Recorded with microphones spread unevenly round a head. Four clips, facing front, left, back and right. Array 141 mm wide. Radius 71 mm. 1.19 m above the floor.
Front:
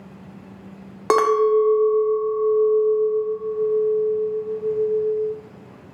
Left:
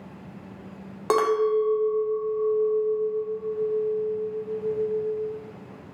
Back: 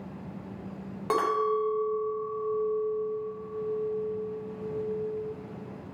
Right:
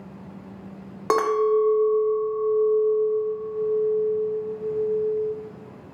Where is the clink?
Straight ahead, 0.6 m.